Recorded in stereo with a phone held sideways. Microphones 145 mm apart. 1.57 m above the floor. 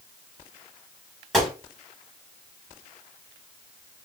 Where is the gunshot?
Centre (ahead or behind), 2 m.